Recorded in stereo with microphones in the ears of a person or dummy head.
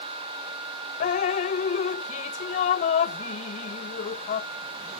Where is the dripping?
40° left (ahead or behind).